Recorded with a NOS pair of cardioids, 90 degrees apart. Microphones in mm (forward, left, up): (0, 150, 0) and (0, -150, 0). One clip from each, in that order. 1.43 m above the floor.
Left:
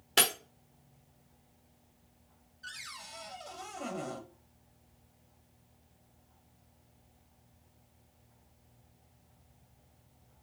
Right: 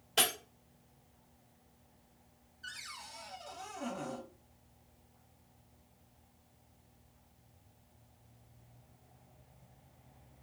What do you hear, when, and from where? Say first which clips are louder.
0.2 s breaking glass: left 3 dB; 60° left, 1.9 m
2.6 s a cupboard door: left 1 dB; 25° left, 1.2 m